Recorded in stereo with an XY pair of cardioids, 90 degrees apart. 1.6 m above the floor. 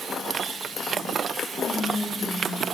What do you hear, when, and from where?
1.6 s whispering: 35° left, 0.9 m